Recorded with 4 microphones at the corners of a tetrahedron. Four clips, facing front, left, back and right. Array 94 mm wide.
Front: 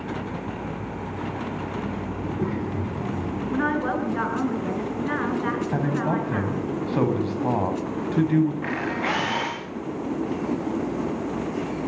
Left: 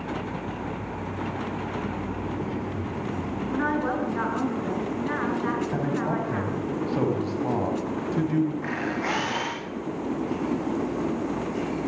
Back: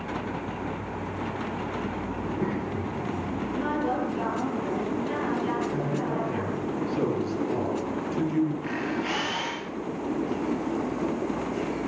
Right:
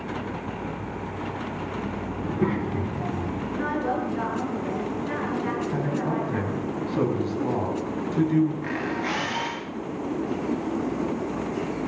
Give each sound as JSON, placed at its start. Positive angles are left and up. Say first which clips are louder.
{"t": 2.2, "sound": "a child speaking", "louder": "right 4 dB, front 2 dB", "azimuth_deg": -90, "distance_m": 4.0}
{"t": 3.5, "sound": "a woman speaking", "louder": "left 1 dB, front 4 dB", "azimuth_deg": 30, "distance_m": 9.0}
{"t": 5.7, "sound": "a man speaking", "louder": "even, front 4 dB", "azimuth_deg": 5, "distance_m": 5.5}
{"t": 8.6, "sound": "a camera shutter", "louder": "even, front 3 dB", "azimuth_deg": 25, "distance_m": 8.0}